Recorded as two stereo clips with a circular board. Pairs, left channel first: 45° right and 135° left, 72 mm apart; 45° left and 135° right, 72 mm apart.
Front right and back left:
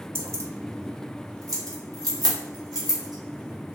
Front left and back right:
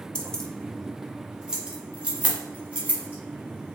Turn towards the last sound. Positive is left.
turn(degrees=160)